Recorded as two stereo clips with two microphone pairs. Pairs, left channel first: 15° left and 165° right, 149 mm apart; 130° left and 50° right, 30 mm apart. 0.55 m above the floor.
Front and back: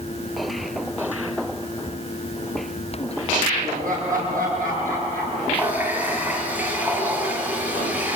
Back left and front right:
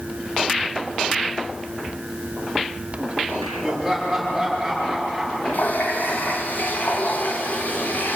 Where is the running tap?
115° left, 3.5 m.